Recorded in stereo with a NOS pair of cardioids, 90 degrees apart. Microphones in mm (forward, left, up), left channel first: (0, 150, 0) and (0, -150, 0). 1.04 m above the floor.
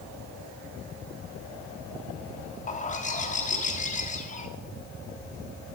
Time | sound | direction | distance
2.7 | a bird | 25° left | 1.2 m